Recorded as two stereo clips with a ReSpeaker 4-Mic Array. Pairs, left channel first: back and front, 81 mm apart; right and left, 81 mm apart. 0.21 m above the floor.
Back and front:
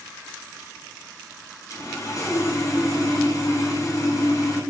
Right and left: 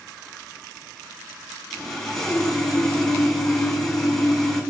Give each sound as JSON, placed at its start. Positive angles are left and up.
{"t": 1.7, "sound": "sawing", "azimuth_deg": -175, "distance_m": 1.0}